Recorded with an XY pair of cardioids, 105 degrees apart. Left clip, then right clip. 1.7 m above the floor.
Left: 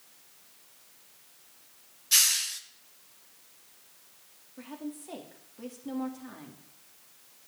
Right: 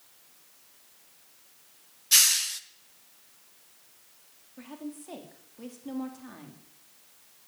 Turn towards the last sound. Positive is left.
turn(degrees=-10)